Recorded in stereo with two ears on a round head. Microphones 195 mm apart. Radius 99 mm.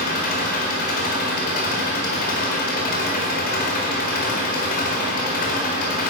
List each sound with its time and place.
0.0 s an engine running: 40° left (ahead or behind), 4.5 m